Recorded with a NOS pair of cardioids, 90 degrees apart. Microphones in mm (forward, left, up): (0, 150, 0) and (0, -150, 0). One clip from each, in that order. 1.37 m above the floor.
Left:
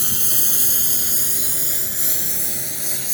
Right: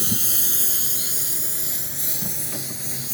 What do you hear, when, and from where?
0.0 s a lawn mower: 15° left; by 3.1 s 40° left